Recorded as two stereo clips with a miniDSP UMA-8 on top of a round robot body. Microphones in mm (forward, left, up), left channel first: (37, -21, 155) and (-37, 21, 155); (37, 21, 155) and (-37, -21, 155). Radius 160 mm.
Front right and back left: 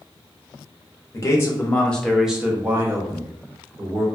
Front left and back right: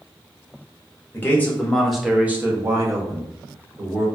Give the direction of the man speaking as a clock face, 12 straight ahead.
1 o'clock.